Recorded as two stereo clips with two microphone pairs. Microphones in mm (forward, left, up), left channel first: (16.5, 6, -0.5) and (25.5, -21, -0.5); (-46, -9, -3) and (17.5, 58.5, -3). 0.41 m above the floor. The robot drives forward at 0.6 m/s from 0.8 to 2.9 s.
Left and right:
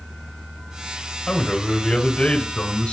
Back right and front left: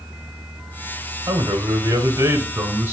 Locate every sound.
1.3 s a man speaking: 70° left, 1.7 m; by 2.9 s 110° left, 1.7 m